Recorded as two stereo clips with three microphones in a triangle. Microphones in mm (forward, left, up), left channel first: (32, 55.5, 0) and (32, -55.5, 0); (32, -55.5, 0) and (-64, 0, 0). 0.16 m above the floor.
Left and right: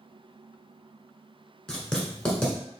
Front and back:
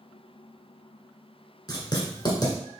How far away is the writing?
About 1.0 m.